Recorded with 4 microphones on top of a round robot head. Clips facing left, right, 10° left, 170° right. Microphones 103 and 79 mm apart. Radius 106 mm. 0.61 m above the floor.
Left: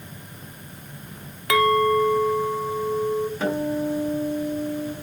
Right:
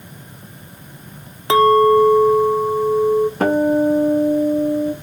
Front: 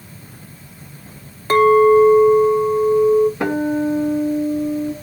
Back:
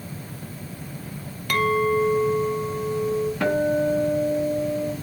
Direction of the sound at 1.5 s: 40° right.